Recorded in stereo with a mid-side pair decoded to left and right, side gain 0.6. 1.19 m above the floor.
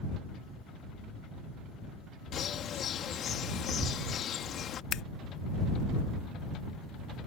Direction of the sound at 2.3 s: 50° left.